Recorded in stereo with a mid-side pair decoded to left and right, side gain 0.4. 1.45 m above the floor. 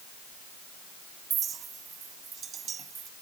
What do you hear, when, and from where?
1.3 s a clink: 55° right